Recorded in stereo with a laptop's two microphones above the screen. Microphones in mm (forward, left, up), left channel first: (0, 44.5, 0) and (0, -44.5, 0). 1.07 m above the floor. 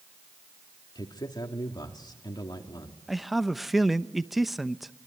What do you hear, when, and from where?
0.9 s a man speaking: 55° left (ahead or behind), 2.5 m
3.1 s a man speaking: centre (ahead or behind), 1.0 m